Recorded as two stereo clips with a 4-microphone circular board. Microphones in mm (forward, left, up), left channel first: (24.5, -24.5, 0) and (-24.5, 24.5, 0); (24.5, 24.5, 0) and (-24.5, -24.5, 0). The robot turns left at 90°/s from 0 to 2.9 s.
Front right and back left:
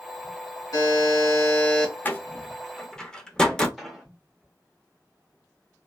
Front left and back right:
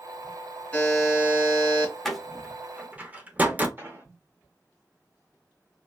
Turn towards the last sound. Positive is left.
turn(degrees=-135)